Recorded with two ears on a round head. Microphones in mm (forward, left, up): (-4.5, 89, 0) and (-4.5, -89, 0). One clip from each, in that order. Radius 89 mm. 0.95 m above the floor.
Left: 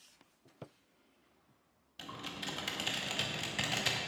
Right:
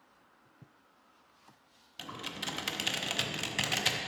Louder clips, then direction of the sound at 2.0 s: Right 3 dB; 15° right (ahead or behind).